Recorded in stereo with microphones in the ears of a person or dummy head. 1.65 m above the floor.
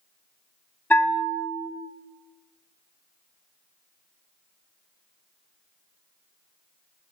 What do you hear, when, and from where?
0.9 s a bell: 5° left (ahead or behind), 0.6 m